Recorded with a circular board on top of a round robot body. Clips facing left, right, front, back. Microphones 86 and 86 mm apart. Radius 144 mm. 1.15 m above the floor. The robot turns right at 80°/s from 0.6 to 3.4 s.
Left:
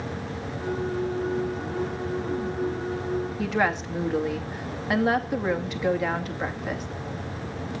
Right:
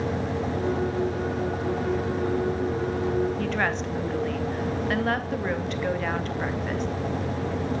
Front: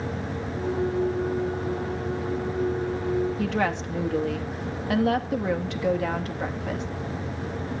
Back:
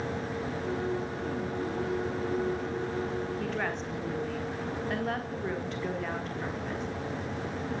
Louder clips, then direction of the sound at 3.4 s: Left 1 dB, front 7 dB; 5° left.